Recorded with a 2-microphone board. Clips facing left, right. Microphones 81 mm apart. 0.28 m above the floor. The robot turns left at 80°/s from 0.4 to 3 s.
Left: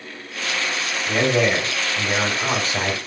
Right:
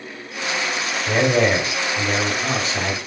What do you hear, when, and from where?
1.1 s a man speaking: 115° right, 1.8 m; by 3.0 s 95° left, 1.8 m